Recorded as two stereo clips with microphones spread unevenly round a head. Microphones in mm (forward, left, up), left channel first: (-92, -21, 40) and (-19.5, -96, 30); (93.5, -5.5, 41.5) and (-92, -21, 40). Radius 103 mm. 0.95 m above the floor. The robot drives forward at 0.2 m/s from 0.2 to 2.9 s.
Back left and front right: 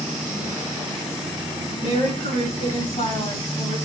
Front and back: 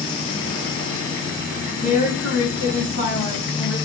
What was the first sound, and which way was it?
A woman speaking, 145° left.